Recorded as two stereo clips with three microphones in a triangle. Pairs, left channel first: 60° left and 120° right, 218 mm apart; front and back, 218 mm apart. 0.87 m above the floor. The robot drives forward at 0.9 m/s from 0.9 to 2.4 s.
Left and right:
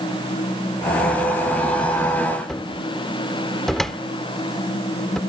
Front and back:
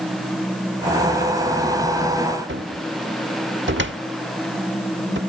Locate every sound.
2.5 s a cupboard door: 145° left